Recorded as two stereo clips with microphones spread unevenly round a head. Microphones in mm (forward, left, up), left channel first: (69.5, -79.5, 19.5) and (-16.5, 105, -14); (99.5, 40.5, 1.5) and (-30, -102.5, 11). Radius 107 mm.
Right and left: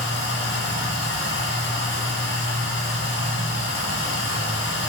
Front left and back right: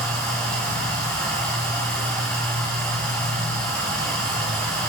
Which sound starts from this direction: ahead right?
Running water, at 0.0 s.